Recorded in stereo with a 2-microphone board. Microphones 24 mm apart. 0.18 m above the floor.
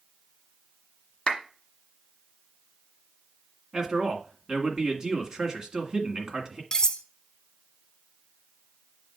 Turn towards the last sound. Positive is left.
turn(degrees=25)  # may be behind; listen again after turning